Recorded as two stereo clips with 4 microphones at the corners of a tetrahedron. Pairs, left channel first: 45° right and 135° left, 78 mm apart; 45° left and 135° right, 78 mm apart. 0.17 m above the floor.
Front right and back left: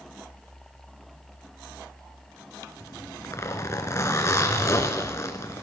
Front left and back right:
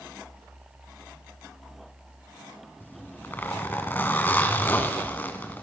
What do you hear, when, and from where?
2.8 s a zipper: 10° right, 1.3 m